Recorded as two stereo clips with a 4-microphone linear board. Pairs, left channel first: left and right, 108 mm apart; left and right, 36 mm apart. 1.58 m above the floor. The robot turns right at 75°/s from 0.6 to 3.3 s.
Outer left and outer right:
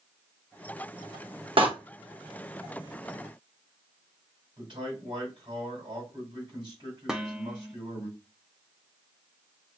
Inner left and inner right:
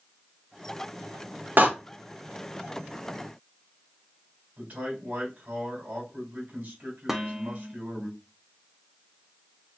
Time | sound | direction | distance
1.6 | a door slam | 55° right (ahead or behind) | 0.9 m
4.6 | a man speaking | 45° right (ahead or behind) | 3 m
7.1 | dishes clattering | 5° right (ahead or behind) | 0.5 m